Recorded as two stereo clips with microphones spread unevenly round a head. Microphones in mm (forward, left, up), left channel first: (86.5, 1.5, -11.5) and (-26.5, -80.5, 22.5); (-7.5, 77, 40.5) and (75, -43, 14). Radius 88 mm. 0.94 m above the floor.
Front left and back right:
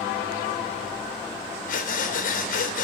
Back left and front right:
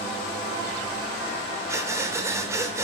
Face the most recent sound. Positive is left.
turn(degrees=15)